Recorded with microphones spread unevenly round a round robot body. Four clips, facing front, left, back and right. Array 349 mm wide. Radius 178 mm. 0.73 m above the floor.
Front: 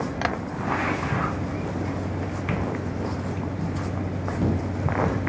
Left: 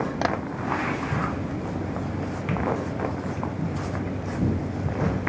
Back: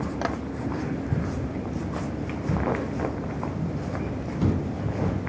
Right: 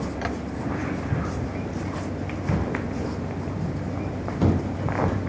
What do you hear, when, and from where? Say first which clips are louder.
0.2 s tapping: left 7 dB, front 2 dB; 90° left, 0.5 m